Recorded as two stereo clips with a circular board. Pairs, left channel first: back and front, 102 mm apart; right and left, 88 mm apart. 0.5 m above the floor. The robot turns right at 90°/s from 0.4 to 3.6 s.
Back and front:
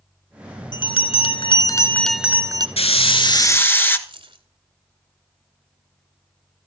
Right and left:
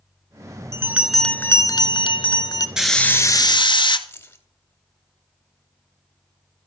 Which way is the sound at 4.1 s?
25° right.